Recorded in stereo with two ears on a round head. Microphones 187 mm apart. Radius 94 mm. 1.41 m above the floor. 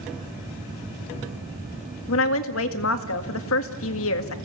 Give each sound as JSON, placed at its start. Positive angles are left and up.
{"t": 2.1, "sound": "a woman speaking", "side_deg": 75, "distance_m": 1.9}